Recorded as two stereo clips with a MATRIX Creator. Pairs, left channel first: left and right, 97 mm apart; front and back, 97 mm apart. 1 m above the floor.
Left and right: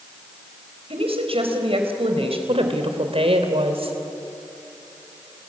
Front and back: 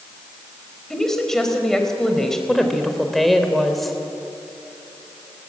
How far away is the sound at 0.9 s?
About 4 m.